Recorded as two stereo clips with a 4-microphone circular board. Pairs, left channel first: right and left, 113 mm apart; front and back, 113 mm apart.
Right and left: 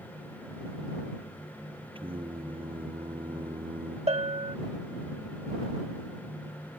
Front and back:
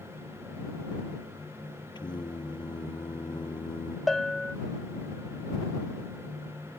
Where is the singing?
50° left.